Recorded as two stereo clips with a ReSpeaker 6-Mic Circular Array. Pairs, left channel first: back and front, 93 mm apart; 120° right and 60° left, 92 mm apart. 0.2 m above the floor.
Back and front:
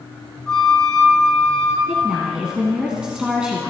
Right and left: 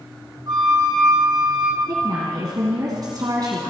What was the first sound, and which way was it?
A flute, 95° left.